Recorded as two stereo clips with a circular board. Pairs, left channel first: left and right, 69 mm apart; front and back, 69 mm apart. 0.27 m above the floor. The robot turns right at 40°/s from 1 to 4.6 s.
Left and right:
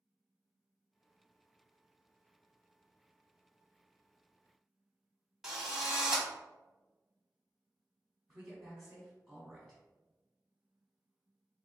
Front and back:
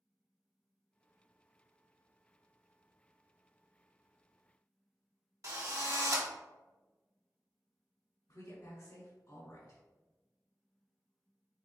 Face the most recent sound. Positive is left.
turn(degrees=0)